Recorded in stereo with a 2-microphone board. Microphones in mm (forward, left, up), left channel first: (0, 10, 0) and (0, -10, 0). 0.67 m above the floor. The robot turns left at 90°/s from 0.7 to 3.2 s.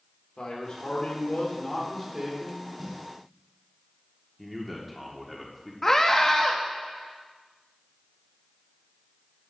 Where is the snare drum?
10° right (ahead or behind), 2.0 m; by 3.0 s 30° right (ahead or behind), 2.0 m.